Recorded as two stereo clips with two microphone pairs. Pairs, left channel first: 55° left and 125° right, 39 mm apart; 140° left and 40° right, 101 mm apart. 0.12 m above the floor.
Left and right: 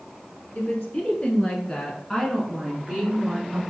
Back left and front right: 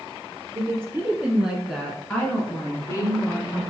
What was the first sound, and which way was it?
A woman speaking, 15° left.